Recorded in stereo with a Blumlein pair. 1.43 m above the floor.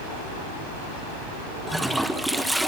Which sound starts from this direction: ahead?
A toilet flushing, at 1.7 s.